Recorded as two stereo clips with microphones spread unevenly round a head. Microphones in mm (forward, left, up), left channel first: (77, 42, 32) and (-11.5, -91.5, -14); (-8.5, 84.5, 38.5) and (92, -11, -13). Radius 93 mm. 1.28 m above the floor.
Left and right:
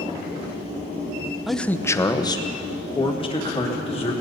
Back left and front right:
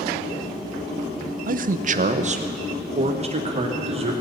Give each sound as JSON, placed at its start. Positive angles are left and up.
{"t": 1.5, "sound": "a man speaking", "azimuth_deg": -40, "distance_m": 0.7}